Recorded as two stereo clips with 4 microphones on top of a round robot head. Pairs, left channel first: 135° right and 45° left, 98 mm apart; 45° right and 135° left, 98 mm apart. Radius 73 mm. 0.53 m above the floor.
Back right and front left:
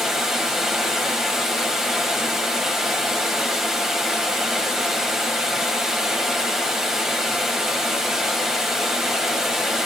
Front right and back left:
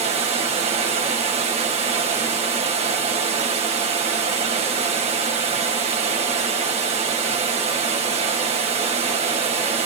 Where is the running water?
130° left, 1.7 m.